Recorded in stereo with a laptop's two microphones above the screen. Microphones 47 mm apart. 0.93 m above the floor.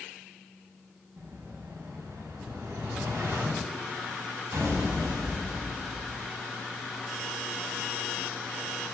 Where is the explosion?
75° right (ahead or behind), 6 m.